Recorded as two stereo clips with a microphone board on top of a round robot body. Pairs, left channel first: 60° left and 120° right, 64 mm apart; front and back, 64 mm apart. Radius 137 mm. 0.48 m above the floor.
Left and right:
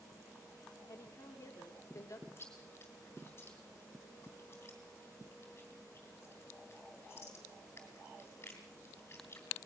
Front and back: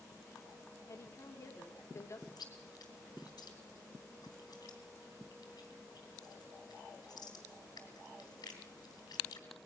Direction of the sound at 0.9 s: 25° left.